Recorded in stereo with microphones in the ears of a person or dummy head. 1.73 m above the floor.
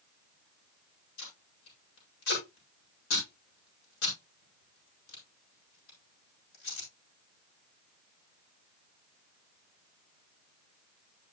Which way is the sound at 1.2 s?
70° left (ahead or behind).